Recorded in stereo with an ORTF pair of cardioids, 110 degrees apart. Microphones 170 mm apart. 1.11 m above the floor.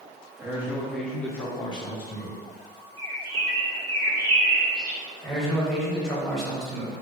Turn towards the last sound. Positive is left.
turn(degrees=0)